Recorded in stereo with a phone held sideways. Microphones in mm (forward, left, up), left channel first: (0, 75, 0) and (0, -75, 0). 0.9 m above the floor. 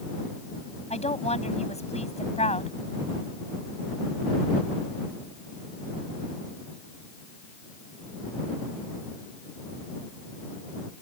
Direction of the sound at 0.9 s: 45° left (ahead or behind).